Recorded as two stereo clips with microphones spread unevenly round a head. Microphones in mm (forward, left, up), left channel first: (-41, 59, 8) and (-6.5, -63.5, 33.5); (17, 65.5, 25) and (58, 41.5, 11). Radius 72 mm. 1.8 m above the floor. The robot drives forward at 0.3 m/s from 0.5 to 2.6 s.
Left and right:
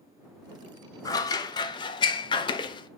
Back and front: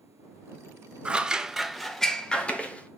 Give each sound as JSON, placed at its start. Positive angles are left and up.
{"t": 1.1, "sound": "scissors", "azimuth_deg": 45, "distance_m": 0.5}